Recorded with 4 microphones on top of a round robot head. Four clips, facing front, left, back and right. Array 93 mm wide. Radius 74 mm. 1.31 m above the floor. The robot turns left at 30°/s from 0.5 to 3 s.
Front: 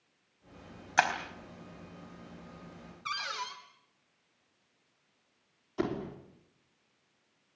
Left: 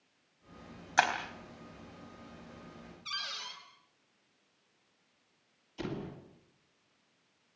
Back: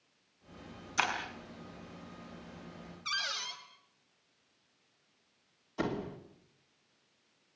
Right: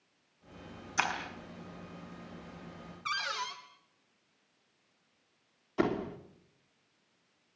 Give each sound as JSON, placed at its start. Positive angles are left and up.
{"t": 1.0, "sound": "breaking glass", "azimuth_deg": 40, "distance_m": 4.5}
{"t": 3.0, "sound": "a cupboard door", "azimuth_deg": -55, "distance_m": 2.5}
{"t": 5.8, "sound": "a door slam", "azimuth_deg": -80, "distance_m": 3.0}